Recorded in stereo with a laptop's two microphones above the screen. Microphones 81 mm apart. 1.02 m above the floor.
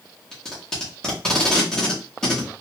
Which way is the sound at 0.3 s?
10° left (ahead or behind).